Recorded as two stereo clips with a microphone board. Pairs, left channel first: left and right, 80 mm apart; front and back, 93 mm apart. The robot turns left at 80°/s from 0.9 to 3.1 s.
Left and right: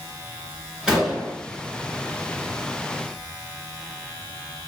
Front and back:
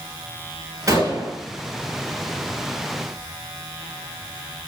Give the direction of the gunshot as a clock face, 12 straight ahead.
6 o'clock.